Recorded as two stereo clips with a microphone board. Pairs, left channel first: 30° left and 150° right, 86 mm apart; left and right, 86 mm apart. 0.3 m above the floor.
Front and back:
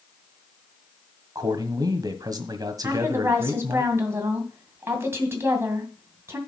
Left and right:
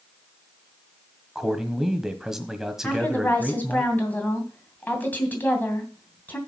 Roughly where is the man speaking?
Behind.